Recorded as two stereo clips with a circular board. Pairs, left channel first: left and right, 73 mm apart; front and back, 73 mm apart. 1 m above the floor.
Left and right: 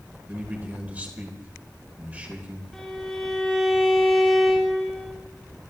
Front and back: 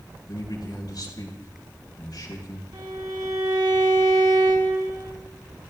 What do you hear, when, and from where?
0.3 s a man speaking: 25° right, 4 m
2.7 s a violin: 175° left, 2.5 m